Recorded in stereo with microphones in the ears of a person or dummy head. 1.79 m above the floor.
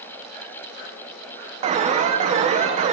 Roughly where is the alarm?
Right.